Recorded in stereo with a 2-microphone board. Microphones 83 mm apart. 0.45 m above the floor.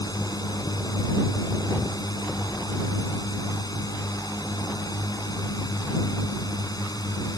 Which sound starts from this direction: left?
A drone, at 0.0 s.